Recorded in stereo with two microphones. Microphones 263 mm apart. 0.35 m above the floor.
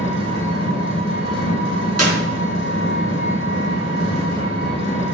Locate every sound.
0.0 s an engine running: 45° left (ahead or behind), 4 m
2.0 s a clap: 70° right (ahead or behind), 3.5 m